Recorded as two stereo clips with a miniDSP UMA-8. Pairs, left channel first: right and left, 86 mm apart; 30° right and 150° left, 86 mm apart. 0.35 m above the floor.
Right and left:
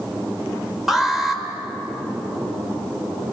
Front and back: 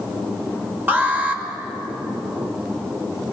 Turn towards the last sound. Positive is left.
turn(degrees=170)